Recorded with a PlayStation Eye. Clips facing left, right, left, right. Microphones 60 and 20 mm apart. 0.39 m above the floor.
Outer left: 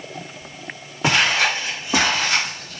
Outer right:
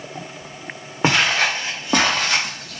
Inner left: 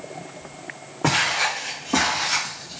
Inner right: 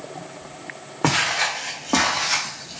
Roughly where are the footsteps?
Right.